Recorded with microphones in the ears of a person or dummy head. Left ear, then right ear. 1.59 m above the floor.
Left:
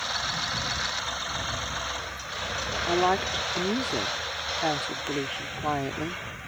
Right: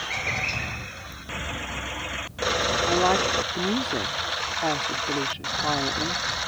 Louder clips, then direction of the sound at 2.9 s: Right 1 dB; 10° left (ahead or behind).